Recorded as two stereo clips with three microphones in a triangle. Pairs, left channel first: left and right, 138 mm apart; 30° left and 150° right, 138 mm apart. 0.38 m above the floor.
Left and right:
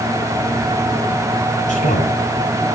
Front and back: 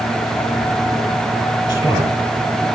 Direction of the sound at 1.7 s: 90° left.